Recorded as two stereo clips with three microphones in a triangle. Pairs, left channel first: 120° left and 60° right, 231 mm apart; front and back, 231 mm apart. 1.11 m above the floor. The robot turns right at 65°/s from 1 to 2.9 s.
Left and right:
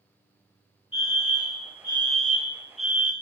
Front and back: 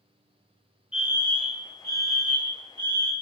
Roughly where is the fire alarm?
Left.